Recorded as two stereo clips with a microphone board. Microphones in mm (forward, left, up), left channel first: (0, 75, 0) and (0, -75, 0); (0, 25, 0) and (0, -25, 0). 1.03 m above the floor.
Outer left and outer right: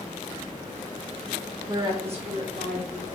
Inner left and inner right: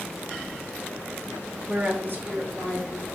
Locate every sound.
1.7 s a woman speaking: 20° right (ahead or behind), 1.0 m; by 3.2 s 75° right (ahead or behind), 1.7 m